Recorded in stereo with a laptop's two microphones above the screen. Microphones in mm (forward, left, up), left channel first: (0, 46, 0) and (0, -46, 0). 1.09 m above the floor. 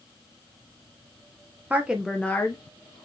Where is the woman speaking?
15° right (ahead or behind), 0.6 m; by 3.0 s 50° left (ahead or behind), 0.6 m.